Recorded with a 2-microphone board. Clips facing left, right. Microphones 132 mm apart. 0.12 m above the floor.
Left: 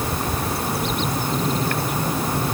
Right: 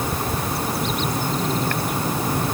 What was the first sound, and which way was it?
Only background noise.